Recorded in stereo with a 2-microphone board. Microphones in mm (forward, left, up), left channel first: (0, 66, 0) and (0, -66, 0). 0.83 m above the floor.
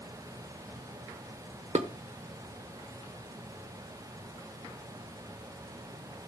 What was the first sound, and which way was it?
Dishes clattering, 60° right (ahead or behind).